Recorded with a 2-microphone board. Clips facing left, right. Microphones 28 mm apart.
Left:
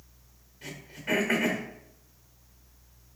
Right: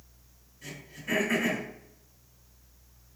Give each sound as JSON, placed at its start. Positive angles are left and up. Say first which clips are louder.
{"t": 0.6, "sound": "throat clearing", "louder": "left 3 dB", "side_deg": 40, "distance_m": 0.9}